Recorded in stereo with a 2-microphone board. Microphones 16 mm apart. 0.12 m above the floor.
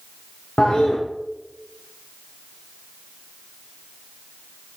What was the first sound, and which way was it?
A toilet flushing, 65° left (ahead or behind).